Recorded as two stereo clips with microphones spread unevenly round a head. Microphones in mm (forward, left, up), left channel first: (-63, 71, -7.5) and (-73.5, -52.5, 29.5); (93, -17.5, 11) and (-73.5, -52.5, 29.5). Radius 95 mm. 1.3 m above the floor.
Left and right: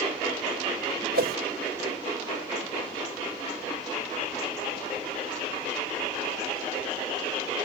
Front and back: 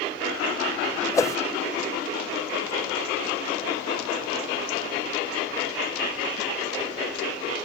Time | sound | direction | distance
1.1 | a whoosh | 60° right | ?